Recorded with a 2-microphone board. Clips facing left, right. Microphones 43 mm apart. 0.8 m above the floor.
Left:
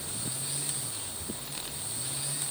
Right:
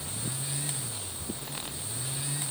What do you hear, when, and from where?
Only background noise.